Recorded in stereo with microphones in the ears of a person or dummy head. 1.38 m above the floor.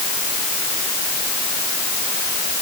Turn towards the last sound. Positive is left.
No sound to turn to.